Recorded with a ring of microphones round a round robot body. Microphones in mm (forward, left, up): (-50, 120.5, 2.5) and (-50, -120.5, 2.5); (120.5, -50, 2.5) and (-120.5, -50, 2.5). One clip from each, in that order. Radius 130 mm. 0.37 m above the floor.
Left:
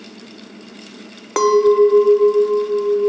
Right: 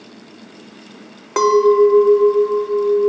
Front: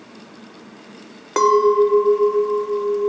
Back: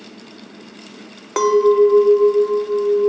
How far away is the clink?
About 0.6 m.